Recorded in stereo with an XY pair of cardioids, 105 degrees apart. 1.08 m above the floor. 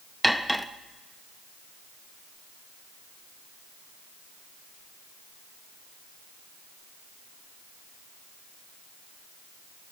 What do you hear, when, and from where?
0.2 s cutlery clinking: straight ahead, 0.7 m